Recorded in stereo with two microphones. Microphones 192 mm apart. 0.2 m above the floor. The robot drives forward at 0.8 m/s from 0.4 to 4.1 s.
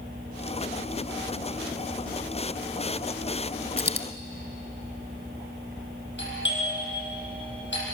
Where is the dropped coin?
65° left (ahead or behind), 1.3 m; by 4.1 s 70° left (ahead or behind), 1.2 m.